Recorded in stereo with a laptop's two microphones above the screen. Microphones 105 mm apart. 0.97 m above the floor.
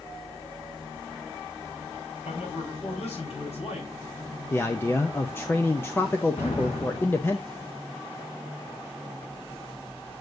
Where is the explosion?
80° left, 5 m.